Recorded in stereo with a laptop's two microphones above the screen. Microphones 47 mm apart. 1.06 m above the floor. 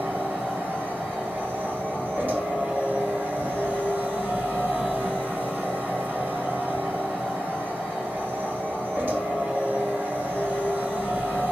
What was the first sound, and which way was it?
A machine running, 45° right (ahead or behind).